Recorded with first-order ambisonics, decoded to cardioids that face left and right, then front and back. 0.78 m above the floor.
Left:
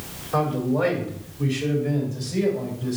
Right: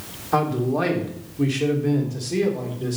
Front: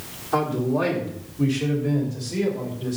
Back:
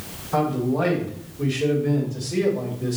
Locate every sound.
0.3 s a man speaking: 65° right, 2.5 m; by 3.0 s 110° right, 2.5 m